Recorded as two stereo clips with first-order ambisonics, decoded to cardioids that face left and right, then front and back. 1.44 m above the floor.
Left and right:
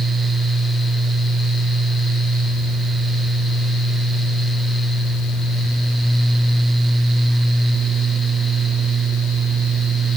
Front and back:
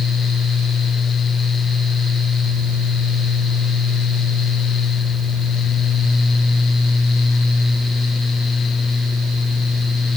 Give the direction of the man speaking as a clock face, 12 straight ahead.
No man speaking in this recording.